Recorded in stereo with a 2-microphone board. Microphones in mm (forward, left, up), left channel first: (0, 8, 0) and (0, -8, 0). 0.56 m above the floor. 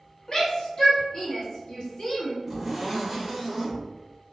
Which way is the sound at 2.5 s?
20° right (ahead or behind).